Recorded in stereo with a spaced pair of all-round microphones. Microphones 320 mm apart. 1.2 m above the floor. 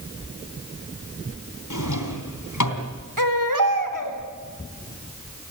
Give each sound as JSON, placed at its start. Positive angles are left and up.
{"t": 1.7, "sound": "a drawer", "side_deg": 70, "distance_m": 3.0}
{"t": 3.2, "sound": "a baby crying", "side_deg": -85, "distance_m": 3.0}